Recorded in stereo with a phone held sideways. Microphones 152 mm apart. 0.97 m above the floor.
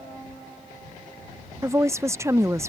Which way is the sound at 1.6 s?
20° right (ahead or behind).